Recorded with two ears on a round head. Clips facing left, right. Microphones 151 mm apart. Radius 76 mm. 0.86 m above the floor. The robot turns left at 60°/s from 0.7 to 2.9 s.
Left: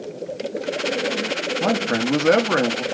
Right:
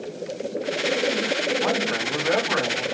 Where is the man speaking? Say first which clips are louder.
Left 3 dB; 130° left, 1.7 m; by 2.8 s 55° left, 1.7 m.